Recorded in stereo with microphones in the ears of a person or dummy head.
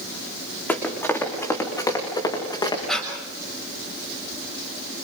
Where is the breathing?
Centre (ahead or behind), 6.5 m.